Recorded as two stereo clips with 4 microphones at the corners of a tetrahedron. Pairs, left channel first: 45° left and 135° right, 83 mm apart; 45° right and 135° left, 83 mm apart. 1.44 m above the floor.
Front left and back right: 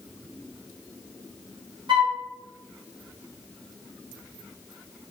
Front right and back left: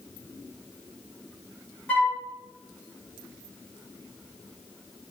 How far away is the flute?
About 1.8 m.